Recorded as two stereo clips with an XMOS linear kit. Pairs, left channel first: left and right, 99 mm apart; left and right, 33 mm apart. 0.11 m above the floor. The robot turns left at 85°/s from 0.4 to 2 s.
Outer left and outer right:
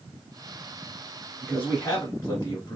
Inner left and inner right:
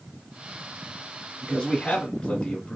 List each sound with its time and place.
1.4 s a man speaking: 15° left (ahead or behind), 1.3 m; by 2.8 s 25° left (ahead or behind), 1.3 m